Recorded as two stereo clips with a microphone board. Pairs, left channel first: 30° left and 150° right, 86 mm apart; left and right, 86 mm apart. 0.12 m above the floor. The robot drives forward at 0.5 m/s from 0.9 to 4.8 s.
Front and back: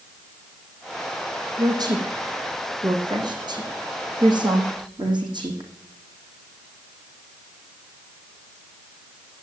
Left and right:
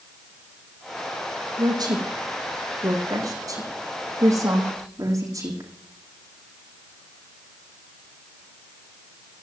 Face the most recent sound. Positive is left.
turn(degrees=-135)